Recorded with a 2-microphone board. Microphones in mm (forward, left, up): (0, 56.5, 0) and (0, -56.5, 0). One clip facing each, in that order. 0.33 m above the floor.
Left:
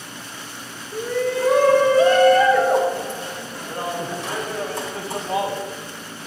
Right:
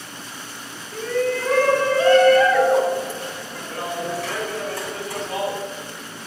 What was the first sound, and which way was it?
A shout, 10° left (ahead or behind).